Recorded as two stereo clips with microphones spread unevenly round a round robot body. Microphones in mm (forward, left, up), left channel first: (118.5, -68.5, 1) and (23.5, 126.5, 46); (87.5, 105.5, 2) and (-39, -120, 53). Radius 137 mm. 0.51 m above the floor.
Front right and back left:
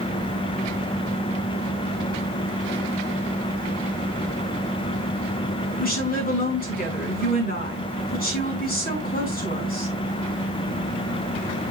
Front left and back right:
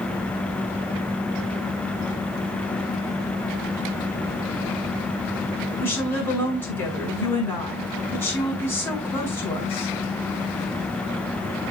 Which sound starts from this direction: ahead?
A woman speaking, at 5.8 s.